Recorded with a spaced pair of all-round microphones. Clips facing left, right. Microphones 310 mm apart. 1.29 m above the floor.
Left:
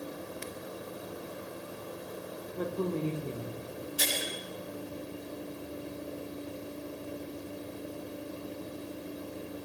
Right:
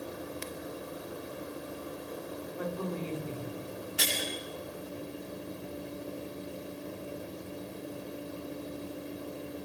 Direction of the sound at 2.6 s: 45° left (ahead or behind).